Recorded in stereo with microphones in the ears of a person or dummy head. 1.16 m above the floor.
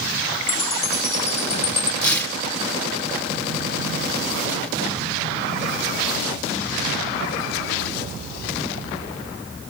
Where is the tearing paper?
10° left (ahead or behind), 2.5 m.